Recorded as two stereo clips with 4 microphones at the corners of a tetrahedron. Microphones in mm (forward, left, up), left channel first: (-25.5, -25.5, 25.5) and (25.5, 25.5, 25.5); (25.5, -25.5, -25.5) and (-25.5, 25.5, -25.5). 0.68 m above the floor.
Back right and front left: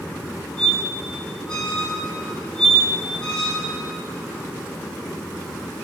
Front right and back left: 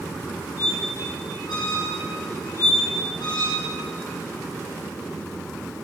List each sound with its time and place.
0.6 s a squeak: 55° right, 3 m